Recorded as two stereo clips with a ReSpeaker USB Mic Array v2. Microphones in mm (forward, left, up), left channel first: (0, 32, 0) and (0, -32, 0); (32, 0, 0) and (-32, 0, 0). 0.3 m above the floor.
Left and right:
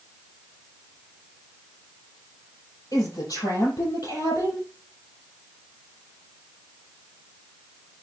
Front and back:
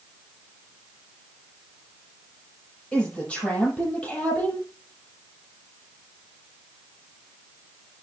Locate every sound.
2.9 s a woman speaking: 75° left, 8 m